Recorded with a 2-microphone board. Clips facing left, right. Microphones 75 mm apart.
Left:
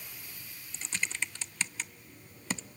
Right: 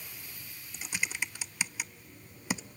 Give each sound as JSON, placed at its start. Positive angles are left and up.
{"t": 0.7, "sound": "typing on a keyboard", "side_deg": -10, "distance_m": 0.6}